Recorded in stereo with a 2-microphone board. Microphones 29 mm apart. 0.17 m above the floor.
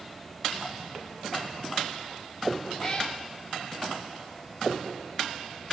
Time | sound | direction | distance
2.8 | a cat meowing | 5° left (ahead or behind) | 6.5 m